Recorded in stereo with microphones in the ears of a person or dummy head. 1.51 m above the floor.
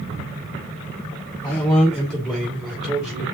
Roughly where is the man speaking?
Centre.